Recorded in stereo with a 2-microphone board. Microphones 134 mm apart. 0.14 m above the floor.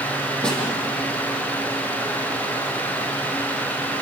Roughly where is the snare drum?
Centre.